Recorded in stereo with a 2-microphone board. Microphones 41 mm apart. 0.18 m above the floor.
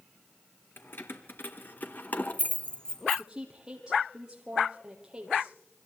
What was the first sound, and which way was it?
Keys jangling, 60° left (ahead or behind).